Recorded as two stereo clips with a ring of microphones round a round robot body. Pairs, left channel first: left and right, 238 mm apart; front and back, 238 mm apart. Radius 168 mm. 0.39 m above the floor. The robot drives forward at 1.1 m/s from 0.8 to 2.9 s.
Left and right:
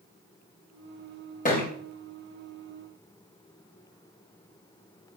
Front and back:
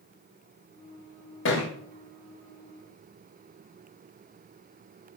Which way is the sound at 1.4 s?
35° left.